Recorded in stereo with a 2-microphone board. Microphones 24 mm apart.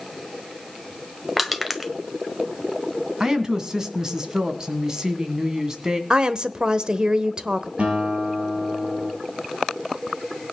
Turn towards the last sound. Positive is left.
turn(degrees=-55)  # may be behind; listen again after turning